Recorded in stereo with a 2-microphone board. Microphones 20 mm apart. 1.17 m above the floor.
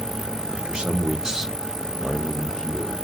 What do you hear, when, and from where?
0.5 s a man speaking: 65° right (ahead or behind), 0.9 m; by 2.9 s 55° left (ahead or behind), 0.9 m